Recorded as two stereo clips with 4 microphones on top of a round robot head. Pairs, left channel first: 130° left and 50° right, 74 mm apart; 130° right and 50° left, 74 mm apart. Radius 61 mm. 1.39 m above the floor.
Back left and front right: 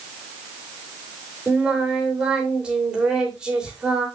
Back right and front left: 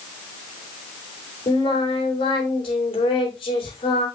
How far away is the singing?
About 3 m.